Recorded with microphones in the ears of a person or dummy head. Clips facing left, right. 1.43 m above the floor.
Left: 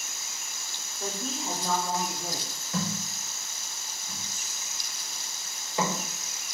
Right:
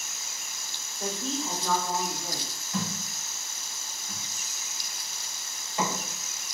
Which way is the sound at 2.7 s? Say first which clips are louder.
Left 1 dB; 65° left (ahead or behind).